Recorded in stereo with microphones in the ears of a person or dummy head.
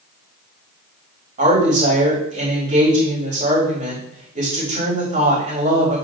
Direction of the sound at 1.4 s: 40° right (ahead or behind).